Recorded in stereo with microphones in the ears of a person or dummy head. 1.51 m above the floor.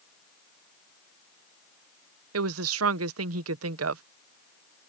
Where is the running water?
No running water in this recording.